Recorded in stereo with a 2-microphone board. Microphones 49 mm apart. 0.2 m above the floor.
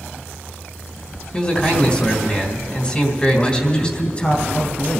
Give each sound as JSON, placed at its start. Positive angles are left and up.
{"t": 1.3, "sound": "a man speaking", "side_deg": 25, "distance_m": 1.6}
{"t": 3.3, "sound": "a man speaking", "side_deg": 25, "distance_m": 1.5}